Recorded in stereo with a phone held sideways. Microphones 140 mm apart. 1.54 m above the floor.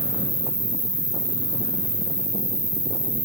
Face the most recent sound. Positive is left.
turn(degrees=85)